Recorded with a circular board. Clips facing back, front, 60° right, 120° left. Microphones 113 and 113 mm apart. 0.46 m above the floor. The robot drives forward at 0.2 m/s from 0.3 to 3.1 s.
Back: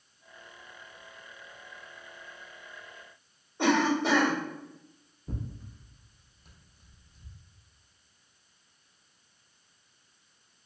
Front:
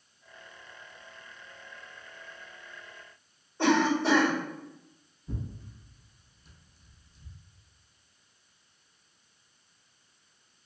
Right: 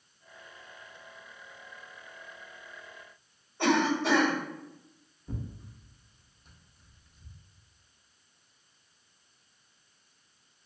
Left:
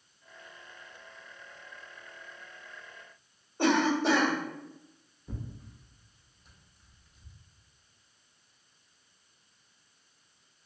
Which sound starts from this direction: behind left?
A cough, at 3.6 s.